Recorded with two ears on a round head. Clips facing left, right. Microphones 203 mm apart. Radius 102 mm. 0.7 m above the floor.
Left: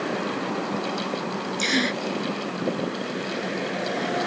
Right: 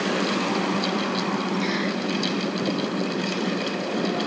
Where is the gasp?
70° left (ahead or behind).